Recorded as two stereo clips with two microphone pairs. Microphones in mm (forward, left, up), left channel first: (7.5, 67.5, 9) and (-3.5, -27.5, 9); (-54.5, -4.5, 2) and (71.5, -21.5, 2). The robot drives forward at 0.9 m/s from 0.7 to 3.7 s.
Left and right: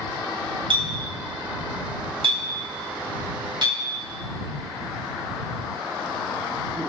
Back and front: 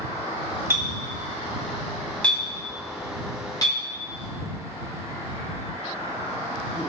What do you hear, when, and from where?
0.7 s a clink: 75° right, 2.5 m; by 3.8 s 130° right, 3 m